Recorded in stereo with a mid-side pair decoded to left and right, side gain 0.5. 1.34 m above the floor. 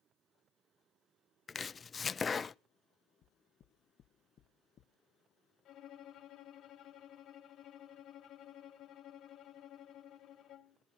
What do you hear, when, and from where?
1.5 s chopping: 30° left, 0.5 m
3.2 s knocking: 55° left, 1.0 m
5.7 s a violin: 65° left, 1.9 m